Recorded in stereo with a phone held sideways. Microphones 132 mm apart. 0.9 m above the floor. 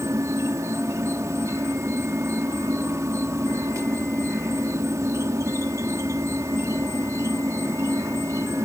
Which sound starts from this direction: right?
An insect, at 0.0 s.